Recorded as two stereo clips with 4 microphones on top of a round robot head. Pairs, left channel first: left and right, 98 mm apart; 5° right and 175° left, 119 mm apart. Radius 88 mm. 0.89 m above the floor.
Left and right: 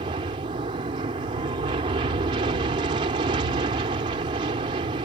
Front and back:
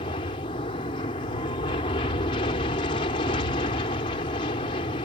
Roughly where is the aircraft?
Ahead right.